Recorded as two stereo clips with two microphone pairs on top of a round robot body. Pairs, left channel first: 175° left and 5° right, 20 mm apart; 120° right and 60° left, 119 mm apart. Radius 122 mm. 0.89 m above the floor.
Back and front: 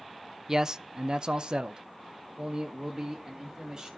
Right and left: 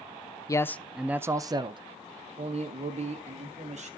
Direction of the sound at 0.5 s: 65° right.